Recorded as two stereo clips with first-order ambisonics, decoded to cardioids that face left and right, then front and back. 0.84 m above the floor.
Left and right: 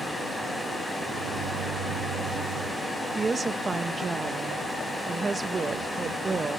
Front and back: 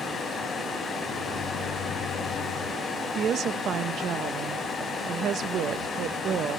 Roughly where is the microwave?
Ahead right.